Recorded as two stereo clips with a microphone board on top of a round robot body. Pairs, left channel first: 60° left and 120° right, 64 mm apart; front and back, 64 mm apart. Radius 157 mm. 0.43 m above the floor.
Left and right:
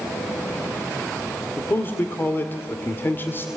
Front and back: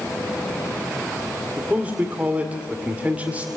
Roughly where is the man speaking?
Behind left.